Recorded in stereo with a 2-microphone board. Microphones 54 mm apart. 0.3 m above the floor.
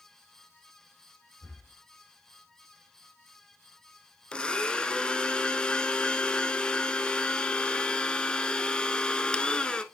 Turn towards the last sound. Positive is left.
turn(degrees=15)  # may be behind; listen again after turning